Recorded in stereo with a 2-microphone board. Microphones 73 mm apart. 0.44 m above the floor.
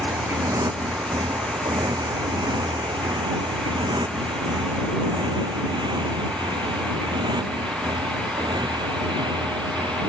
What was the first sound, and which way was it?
A motorcycle, 45° right (ahead or behind).